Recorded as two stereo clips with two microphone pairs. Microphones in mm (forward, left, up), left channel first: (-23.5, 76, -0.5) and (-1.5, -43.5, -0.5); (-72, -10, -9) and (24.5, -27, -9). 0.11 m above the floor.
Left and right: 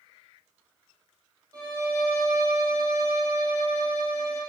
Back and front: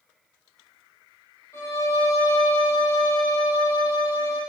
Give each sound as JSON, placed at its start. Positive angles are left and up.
{"t": 1.5, "sound": "a violin", "azimuth_deg": -135, "distance_m": 3.5}